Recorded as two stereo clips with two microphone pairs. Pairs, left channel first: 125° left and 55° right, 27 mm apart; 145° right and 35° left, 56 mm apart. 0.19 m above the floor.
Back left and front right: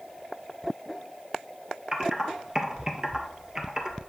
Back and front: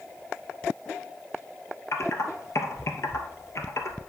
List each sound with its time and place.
1.9 s typing on a keyboard: 115° right, 1.3 m